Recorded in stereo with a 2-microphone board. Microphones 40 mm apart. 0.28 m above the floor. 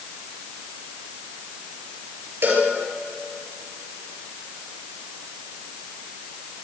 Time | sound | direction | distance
2.4 | a cowbell | 55° right (ahead or behind) | 6.5 m